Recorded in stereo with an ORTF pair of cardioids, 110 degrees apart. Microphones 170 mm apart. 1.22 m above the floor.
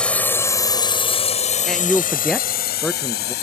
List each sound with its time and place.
0.0 s a drone: 5° left; by 3.4 s 75° left
1.7 s a man speaking: 5° left